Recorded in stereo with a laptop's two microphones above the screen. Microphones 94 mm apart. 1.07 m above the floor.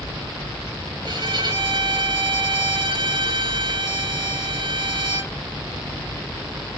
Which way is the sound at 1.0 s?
55° right (ahead or behind).